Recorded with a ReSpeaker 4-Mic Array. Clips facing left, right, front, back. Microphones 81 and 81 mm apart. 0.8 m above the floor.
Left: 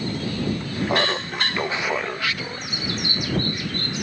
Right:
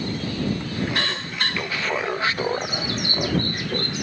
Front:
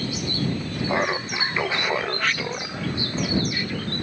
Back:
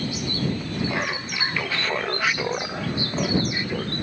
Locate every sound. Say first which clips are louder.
0.9 s laughter: left 5 dB, front 4 dB; 60° left; by 3.9 s 115° right